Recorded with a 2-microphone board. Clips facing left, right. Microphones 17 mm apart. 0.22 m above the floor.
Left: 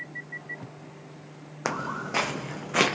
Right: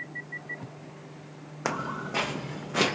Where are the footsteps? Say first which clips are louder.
Left 1 dB; 5° left (ahead or behind), 0.6 m; by 3.0 s 50° left (ahead or behind), 0.9 m.